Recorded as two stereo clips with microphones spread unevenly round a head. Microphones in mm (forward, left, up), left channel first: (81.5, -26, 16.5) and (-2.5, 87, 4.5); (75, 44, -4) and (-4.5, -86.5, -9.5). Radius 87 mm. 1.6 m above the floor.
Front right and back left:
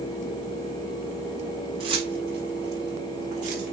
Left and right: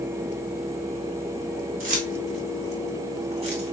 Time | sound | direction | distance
1.8 | keys jangling | 170° right | 4 m